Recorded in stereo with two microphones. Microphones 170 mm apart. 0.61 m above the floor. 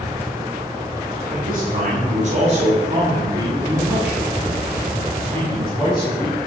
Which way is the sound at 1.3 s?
60° right (ahead or behind).